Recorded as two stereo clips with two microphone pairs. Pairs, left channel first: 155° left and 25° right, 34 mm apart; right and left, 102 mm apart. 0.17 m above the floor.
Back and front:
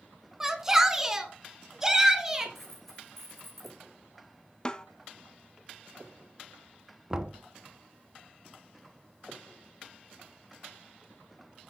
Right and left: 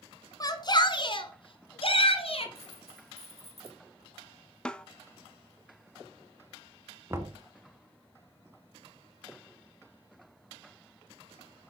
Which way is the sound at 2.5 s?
75° left.